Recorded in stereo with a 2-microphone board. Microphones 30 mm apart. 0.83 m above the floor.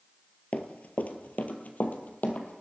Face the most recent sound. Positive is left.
turn(degrees=60)  # may be behind; listen again after turning